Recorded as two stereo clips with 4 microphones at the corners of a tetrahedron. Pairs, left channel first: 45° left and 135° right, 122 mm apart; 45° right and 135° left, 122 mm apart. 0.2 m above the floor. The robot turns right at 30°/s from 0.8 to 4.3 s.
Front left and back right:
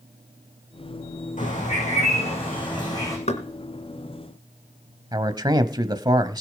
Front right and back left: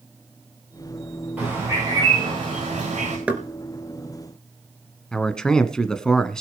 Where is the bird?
60° left, 7 m; by 3.2 s 110° left, 7 m.